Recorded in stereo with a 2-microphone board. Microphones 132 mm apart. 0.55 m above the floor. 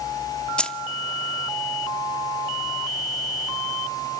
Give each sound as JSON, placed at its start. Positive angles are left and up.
{"t": 0.6, "sound": "keys jangling", "side_deg": 5, "distance_m": 0.6}